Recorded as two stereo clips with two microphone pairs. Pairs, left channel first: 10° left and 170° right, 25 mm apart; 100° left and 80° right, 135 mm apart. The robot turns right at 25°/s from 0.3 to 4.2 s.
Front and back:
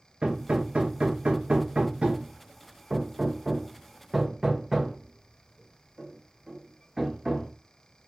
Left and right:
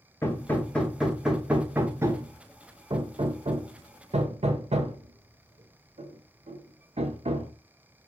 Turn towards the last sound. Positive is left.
turn(degrees=-90)